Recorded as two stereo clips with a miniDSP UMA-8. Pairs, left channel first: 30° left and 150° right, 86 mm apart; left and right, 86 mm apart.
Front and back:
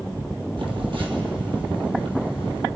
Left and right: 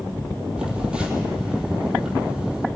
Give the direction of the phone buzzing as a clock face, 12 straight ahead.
6 o'clock.